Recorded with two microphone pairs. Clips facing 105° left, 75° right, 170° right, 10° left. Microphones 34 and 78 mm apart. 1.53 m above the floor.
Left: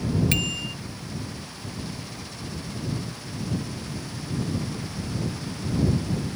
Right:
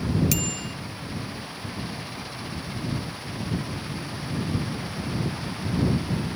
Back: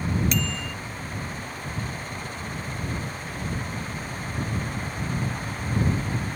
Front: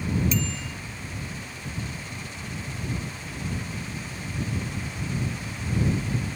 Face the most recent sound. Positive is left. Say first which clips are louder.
# left 2 dB, back 1 dB
turn(degrees=165)